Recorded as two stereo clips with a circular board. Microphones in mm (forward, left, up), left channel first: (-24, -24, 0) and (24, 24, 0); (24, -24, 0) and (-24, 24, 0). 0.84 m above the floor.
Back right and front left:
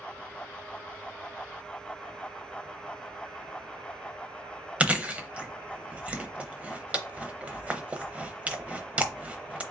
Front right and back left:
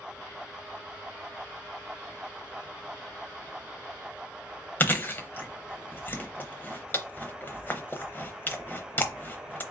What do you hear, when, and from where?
4.8 s chewing: 10° right, 0.7 m